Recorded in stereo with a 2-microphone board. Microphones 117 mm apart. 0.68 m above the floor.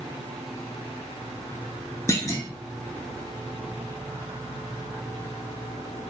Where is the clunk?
25° left (ahead or behind), 0.7 m.